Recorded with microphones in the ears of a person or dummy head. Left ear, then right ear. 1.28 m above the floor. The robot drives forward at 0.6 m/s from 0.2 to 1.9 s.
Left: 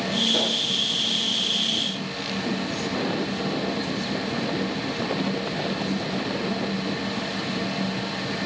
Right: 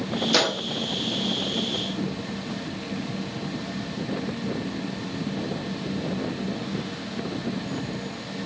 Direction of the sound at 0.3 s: 55° right (ahead or behind).